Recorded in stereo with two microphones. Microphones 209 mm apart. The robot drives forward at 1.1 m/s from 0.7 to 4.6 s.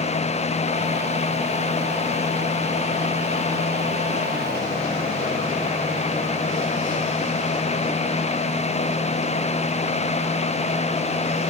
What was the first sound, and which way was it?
Only background noise.